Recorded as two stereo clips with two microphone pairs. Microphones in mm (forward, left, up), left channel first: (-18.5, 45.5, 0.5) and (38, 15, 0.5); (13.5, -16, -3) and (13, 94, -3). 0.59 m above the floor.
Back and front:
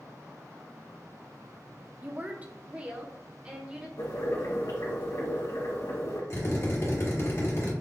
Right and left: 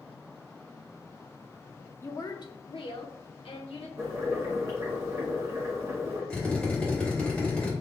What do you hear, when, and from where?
2.0 s a woman speaking: 50° right, 0.6 m; by 3.9 s 105° right, 1.6 m
4.0 s boiling: 150° left, 2 m
6.3 s a drill: 170° right, 1.7 m